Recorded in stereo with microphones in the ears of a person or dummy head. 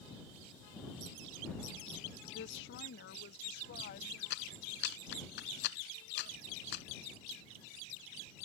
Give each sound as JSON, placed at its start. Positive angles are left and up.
{"t": 2.3, "sound": "a woman speaking", "side_deg": 70}
{"t": 4.3, "sound": "a clap", "side_deg": 70}